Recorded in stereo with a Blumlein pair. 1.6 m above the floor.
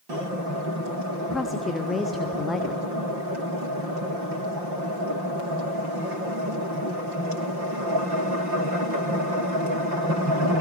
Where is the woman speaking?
10° left, 0.7 m.